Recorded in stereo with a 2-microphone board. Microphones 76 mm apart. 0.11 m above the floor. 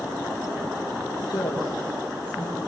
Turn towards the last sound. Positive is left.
turn(degrees=80)